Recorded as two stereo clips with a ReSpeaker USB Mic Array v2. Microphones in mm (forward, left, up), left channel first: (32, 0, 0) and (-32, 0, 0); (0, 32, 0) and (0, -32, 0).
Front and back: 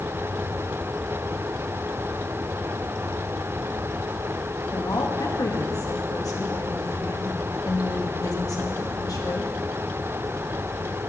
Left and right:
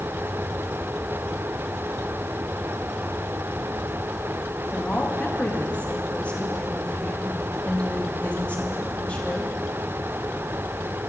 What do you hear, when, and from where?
4.7 s a woman speaking: 20° left, 2 m